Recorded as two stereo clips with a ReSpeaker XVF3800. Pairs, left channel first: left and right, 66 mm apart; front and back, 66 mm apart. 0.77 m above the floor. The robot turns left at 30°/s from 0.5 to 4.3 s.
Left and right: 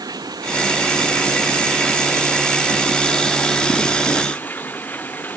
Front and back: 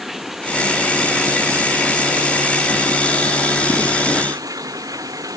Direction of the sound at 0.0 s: 95° right.